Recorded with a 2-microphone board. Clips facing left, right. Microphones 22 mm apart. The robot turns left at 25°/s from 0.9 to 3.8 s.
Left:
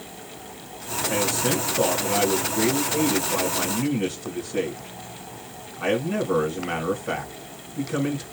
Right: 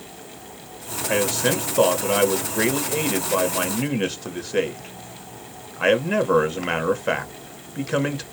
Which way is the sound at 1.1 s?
40° right.